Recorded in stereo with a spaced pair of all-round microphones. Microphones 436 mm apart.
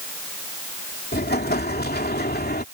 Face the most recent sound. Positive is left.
turn(degrees=20)  # may be behind; listen again after turning